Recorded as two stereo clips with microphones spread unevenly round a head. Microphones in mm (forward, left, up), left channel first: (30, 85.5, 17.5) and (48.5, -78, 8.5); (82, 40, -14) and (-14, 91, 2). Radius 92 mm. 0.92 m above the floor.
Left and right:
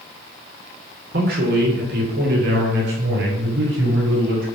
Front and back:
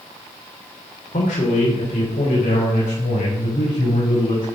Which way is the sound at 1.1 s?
60° right.